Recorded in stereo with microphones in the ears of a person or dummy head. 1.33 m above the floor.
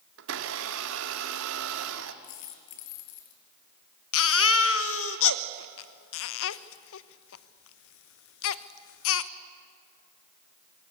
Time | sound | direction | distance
0.2 | a blender | 75° right (ahead or behind) | 1.8 m
2.2 | a dropped coin | 75° left (ahead or behind) | 4.5 m
4.1 | a baby crying | 85° left | 0.9 m